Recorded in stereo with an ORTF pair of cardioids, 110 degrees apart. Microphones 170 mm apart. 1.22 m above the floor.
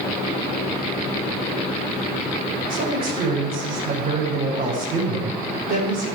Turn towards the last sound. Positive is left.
turn(degrees=-60)